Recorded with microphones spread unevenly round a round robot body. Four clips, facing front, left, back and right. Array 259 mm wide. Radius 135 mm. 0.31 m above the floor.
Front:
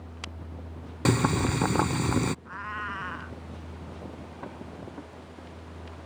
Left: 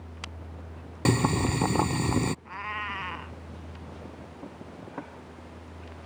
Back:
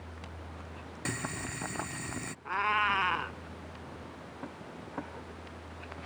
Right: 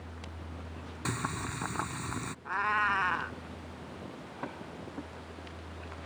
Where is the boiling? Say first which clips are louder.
Left 11 dB, front 14 dB; 45° left.